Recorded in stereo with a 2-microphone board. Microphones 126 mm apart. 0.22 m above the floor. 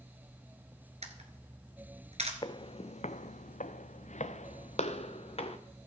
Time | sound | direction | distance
1.0 | a camera shutter | 60° right (ahead or behind) | 1.9 m
2.4 | footsteps | 40° left (ahead or behind) | 0.7 m